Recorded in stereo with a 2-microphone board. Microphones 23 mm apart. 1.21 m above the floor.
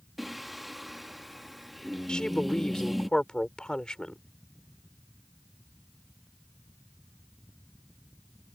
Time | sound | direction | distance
0.2 | singing | centre (ahead or behind) | ?
2.1 | a woman speaking | 40° left (ahead or behind) | ?